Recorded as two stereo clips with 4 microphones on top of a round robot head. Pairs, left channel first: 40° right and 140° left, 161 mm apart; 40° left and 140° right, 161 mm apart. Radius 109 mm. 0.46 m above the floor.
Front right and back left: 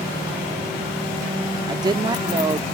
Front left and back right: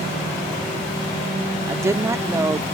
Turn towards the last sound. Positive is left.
turn(degrees=170)